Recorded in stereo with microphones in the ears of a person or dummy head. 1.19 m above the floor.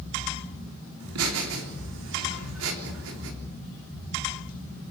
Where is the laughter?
75° right (ahead or behind), 4 m.